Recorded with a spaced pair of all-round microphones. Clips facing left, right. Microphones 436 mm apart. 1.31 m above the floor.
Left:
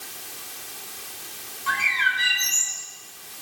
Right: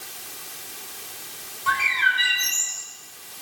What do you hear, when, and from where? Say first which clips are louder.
1.7 s a bird: right 3 dB; 70° right (ahead or behind), 5 m